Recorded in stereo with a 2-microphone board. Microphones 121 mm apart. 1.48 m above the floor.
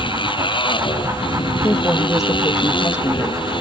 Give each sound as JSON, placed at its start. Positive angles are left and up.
{"t": 0.0, "sound": "a motorcycle", "side_deg": 45}
{"t": 1.6, "sound": "a woman speaking", "side_deg": 20}